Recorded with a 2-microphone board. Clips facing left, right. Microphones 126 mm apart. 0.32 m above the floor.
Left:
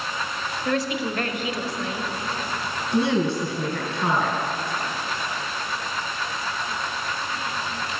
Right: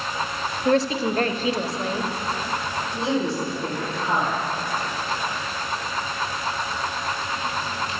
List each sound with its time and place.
0.7 s a woman speaking: 35° right (ahead or behind), 1.2 m
2.9 s a woman speaking: 65° left (ahead or behind), 4.5 m